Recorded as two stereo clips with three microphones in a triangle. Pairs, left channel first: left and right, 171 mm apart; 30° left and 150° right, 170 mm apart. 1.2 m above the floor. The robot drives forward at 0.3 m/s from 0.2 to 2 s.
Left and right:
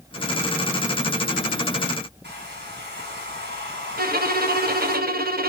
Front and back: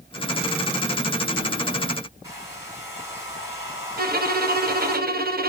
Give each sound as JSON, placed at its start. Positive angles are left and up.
{"t": 2.2, "sound": "a hair dryer", "azimuth_deg": -80, "distance_m": 4.5}
{"t": 4.0, "sound": "a violin", "azimuth_deg": -120, "distance_m": 1.0}